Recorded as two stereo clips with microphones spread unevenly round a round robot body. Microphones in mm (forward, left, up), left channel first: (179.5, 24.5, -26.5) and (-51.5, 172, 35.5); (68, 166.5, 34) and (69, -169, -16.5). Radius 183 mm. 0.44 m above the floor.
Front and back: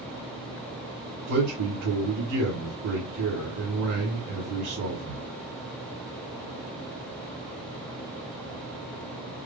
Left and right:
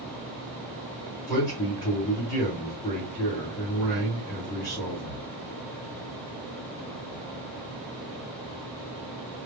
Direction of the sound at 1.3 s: 175° left.